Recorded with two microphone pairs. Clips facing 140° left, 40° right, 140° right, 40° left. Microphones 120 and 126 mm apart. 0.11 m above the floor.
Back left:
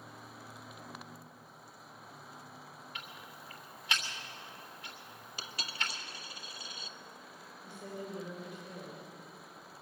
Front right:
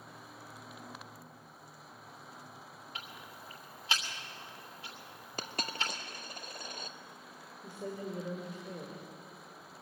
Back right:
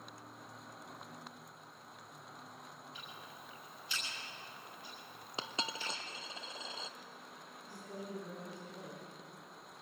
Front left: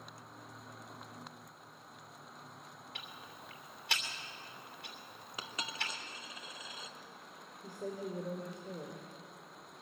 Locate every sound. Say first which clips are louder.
3.0 s ticking: front right 2 dB, front left 1 dB; 20° left, 3 m
5.4 s a dropped coin: front right 4 dB, back right 2 dB; 80° right, 0.9 m
7.6 s a woman speaking: front right 3 dB, front left 6 dB; 10° left, 4.5 m